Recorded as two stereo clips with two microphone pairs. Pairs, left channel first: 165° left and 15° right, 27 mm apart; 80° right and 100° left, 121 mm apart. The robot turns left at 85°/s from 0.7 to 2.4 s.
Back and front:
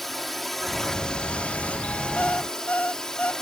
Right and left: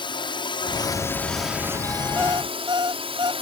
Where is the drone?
110° right; by 3.4 s 105° left.